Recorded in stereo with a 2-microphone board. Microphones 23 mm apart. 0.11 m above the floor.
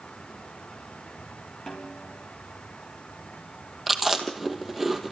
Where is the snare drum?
35° left (ahead or behind), 4.5 m.